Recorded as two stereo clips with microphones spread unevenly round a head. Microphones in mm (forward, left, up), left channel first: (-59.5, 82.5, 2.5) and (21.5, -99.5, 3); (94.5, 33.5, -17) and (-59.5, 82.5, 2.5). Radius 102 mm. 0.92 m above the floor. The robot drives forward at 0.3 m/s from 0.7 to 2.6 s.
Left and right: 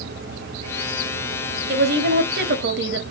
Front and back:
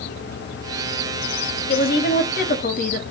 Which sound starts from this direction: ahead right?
A woman speaking, at 1.7 s.